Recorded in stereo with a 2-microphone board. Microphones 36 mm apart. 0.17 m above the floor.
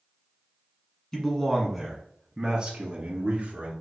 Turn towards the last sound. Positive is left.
turn(degrees=-40)  # may be behind; listen again after turning